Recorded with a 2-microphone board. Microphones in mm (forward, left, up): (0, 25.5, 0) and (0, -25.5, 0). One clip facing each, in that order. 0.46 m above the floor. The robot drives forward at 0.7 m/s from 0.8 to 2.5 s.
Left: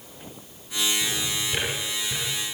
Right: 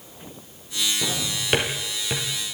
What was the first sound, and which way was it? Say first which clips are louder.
A drawer: right 1 dB; 55° right (ahead or behind).